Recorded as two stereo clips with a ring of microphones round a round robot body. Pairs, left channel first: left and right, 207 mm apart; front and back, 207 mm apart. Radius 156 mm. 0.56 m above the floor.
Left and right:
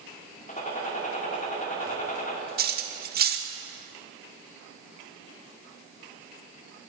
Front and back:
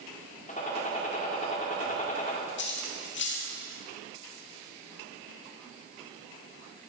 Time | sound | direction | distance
0.5 | a gunshot | 45° left | 1.8 m
2.6 | cutlery clinking | 45° right | 0.9 m